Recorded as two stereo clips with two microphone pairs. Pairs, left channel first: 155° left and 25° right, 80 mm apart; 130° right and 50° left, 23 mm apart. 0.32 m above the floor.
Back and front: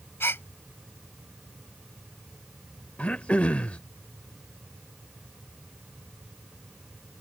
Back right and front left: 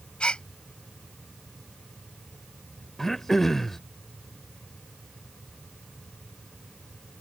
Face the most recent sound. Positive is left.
turn(degrees=-175)